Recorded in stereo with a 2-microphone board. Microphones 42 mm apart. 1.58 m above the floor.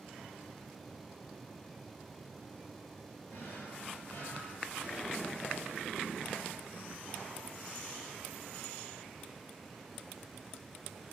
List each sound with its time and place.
3.3 s a drawer: 45° left (ahead or behind), 4 m